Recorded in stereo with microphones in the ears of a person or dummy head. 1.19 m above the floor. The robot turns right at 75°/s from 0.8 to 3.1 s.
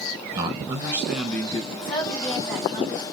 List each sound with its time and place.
0.3 s a man speaking: 25° right, 1.0 m; by 1.6 s 35° left, 1.0 m
1.7 s a woman speaking: 130° left, 1.9 m; by 3.0 s 130° right, 1.9 m